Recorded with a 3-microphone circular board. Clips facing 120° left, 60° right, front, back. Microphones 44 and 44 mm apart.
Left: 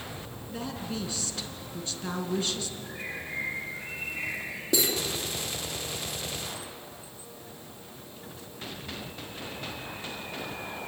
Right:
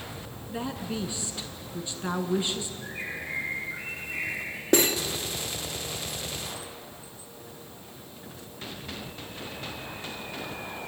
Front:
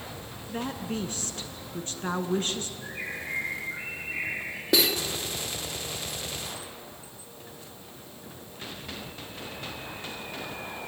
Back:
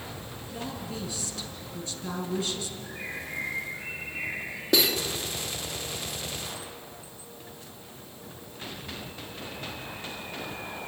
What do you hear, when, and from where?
0.5 s a woman speaking: straight ahead, 2.5 m
2.8 s a bird: 10° right, 6.5 m
4.7 s cutlery clinking: 85° right, 2 m